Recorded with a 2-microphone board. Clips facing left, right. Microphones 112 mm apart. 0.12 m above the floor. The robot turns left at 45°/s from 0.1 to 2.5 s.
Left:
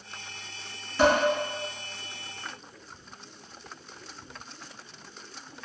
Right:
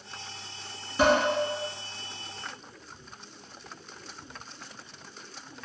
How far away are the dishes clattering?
About 0.9 m.